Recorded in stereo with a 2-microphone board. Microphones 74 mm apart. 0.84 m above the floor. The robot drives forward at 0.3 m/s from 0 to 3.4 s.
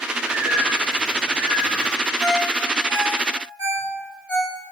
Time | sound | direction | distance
0.2 | a bird | 30° left (ahead or behind) | 2 m
2.2 | a ringtone | 65° left (ahead or behind) | 2.5 m